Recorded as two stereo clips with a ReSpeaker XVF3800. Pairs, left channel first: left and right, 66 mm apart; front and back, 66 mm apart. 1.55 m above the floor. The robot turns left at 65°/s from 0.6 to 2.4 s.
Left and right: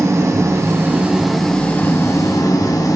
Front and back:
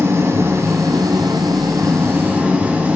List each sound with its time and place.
0.0 s an engine running: 130° right, 0.9 m; by 3.0 s 110° left, 0.9 m